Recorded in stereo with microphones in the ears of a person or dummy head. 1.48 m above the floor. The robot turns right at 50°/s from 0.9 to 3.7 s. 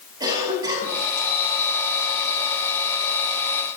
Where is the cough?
20° right (ahead or behind), 8.5 m; by 1.0 s 25° right (ahead or behind), 8.5 m.